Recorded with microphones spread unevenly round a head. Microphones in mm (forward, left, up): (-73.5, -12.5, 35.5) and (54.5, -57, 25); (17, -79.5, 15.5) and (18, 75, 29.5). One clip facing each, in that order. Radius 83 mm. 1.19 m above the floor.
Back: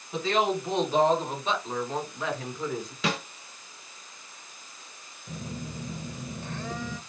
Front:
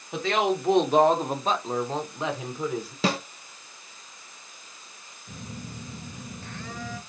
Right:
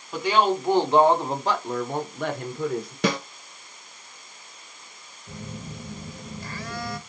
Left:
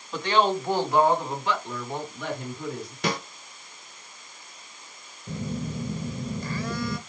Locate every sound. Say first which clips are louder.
0.1 s a woman speaking: front 1 dB, right 1 dB; 10° right, 1.2 m; by 2.9 s 100° right, 1.1 m
3.0 s a snare drum: front 4 dB, right 4 dB; 75° right, 0.6 m
5.3 s a phone buzzing: back 3 dB, left 6 dB; 90° left, 0.5 m